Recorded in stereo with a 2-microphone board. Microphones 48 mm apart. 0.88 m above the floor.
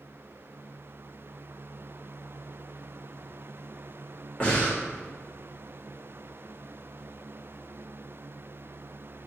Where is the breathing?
25° left (ahead or behind), 1.3 m.